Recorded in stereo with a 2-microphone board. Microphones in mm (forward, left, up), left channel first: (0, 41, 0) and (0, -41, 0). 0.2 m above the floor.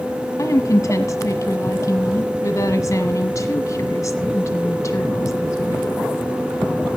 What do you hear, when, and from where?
0.4 s a woman speaking: 40° left (ahead or behind), 1.4 m